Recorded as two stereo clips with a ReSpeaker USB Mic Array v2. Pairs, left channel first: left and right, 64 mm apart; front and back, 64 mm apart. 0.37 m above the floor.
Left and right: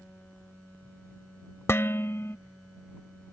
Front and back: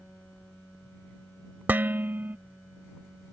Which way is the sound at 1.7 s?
125° left.